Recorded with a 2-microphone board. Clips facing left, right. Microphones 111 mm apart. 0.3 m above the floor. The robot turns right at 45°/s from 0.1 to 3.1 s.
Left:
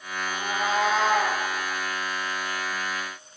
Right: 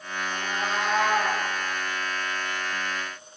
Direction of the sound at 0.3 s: 115° left.